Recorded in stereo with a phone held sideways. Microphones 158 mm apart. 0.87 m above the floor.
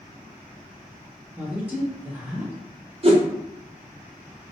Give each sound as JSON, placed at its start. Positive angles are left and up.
{"t": 1.4, "sound": "a woman speaking", "side_deg": -10, "distance_m": 1.6}
{"t": 3.0, "sound": "a whoosh", "side_deg": -40, "distance_m": 0.6}